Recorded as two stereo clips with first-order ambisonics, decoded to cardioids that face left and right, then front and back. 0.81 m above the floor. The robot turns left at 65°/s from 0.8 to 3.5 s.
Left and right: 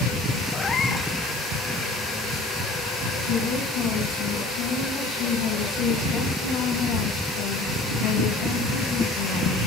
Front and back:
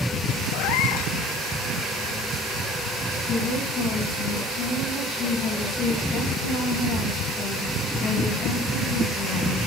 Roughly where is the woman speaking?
Ahead left.